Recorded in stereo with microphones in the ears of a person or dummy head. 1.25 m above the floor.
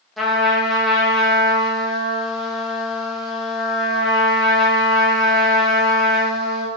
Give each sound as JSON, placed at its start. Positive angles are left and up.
{"t": 0.2, "sound": "a trumpet", "side_deg": 0, "distance_m": 1.3}